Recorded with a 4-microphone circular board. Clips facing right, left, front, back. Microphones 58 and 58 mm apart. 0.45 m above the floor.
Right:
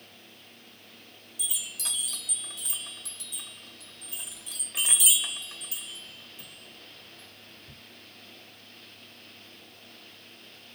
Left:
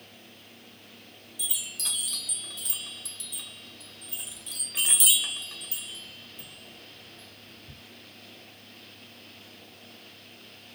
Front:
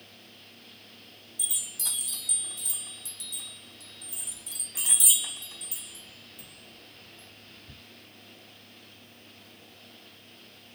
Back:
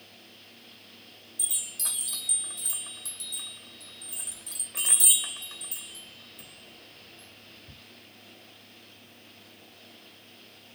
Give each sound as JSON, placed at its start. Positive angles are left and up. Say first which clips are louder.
{"t": 1.4, "sound": "a chime", "louder": "left 1 dB, front 1 dB", "azimuth_deg": -175, "distance_m": 2.0}